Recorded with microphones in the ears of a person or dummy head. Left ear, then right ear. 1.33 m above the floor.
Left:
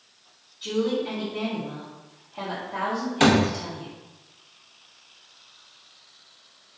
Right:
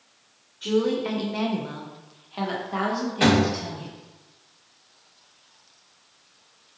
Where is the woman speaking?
35° right (ahead or behind), 0.6 m; by 3.9 s 40° right (ahead or behind), 1.6 m.